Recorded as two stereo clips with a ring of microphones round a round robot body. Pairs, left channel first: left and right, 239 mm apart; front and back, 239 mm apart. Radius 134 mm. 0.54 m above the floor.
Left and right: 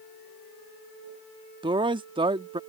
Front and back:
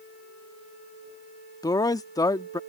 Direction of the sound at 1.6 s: 55° right.